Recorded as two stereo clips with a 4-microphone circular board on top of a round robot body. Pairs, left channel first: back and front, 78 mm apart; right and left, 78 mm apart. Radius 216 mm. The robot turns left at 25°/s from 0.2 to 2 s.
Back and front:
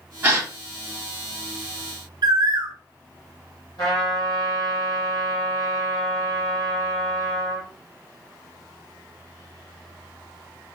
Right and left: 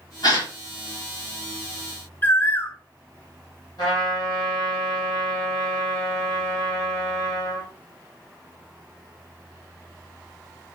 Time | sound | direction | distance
0.2 | a gasp | 65° right | 1.8 m
2.2 | a bird | 25° right | 0.6 m
3.8 | a trumpet | 130° right | 0.8 m